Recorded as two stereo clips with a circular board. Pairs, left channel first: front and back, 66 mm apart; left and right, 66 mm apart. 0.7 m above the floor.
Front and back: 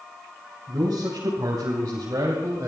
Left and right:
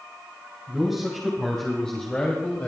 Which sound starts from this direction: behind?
A man speaking, at 0.7 s.